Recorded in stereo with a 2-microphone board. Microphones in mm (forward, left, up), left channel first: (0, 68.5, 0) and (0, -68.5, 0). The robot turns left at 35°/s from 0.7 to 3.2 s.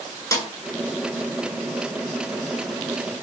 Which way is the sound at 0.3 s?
20° left (ahead or behind).